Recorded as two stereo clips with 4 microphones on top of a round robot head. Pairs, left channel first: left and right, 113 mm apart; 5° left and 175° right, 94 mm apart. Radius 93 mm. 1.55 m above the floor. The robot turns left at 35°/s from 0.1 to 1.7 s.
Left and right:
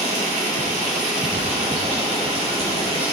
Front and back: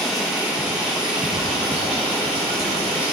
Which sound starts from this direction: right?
Running water, at 0.0 s.